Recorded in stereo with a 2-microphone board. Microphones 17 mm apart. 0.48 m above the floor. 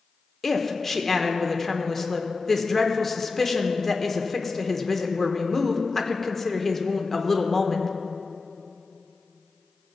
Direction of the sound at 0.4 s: 15° left (ahead or behind).